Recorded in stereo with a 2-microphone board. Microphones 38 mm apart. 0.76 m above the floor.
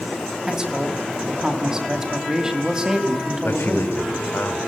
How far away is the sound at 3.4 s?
About 3 m.